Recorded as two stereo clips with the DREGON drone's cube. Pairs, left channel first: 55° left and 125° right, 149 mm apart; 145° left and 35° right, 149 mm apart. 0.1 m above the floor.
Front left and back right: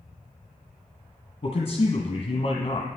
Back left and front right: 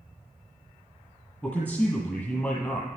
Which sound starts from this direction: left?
A man speaking, at 1.4 s.